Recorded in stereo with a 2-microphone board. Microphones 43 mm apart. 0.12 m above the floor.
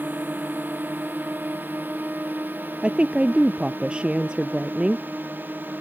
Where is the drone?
45° right (ahead or behind).